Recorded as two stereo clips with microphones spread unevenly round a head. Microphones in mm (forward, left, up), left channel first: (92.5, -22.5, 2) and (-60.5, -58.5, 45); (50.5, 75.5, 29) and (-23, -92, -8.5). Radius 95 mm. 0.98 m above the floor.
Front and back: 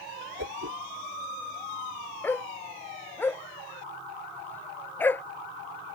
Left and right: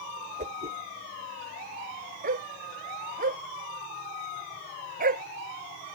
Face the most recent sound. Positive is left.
turn(degrees=-65)